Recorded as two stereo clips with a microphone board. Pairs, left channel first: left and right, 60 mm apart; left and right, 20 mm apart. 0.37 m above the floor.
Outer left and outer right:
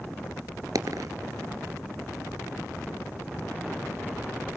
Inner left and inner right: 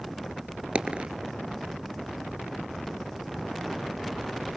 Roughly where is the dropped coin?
Right.